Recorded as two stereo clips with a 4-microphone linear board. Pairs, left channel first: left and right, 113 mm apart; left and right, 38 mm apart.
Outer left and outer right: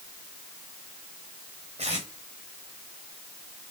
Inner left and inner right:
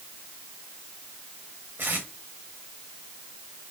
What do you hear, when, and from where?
1.8 s tape being pulled: 75° right (ahead or behind), 3.5 m